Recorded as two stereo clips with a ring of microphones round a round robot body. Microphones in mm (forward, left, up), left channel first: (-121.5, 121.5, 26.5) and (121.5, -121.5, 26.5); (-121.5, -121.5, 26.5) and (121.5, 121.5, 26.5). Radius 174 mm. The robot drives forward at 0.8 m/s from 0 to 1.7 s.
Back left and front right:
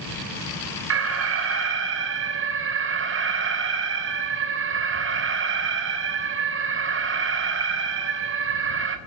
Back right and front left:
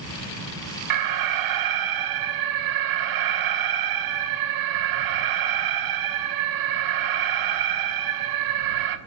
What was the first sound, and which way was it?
An alarm, 10° left.